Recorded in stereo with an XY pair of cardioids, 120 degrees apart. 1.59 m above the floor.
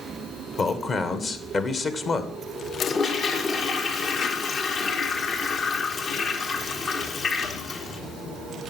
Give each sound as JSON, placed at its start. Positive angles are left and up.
{"t": 0.6, "sound": "a man speaking", "azimuth_deg": 40, "distance_m": 1.4}
{"t": 2.8, "sound": "a toilet flushing", "azimuth_deg": 50, "distance_m": 1.5}